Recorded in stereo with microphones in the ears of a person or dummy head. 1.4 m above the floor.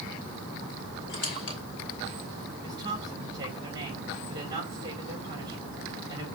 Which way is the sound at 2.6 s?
20° right (ahead or behind).